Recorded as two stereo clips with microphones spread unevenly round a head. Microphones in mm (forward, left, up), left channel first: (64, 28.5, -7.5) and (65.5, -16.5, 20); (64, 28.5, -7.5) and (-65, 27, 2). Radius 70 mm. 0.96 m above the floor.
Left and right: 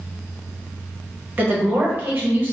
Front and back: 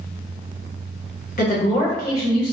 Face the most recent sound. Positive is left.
turn(degrees=-35)